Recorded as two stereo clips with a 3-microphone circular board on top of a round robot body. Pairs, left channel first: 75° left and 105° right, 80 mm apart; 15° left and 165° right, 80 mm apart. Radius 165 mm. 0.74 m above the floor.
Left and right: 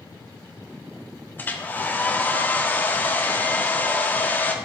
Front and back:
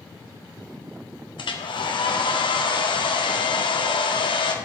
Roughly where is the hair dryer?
Ahead.